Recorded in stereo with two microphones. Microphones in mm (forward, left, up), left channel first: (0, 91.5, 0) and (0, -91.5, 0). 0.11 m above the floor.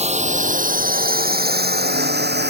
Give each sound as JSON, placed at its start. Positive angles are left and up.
{"t": 0.0, "sound": "a drone", "side_deg": -35}